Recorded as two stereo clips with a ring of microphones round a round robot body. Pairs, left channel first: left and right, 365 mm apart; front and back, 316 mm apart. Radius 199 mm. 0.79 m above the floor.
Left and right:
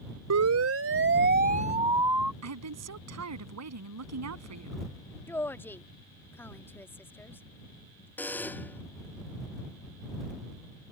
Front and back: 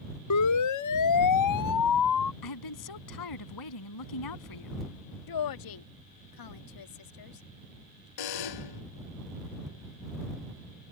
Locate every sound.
0.3 s a siren: 40° right; by 2.3 s straight ahead
2.4 s a woman speaking: 40° right
5.3 s a woman speaking: 5° left
8.2 s a buzzer: 5° left